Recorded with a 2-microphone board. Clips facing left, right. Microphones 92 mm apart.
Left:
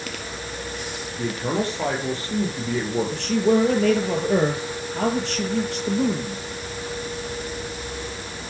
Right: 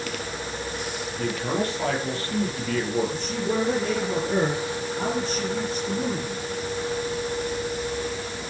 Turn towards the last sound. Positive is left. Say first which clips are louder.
# left 7 dB
turn(degrees=70)  # may be behind; listen again after turning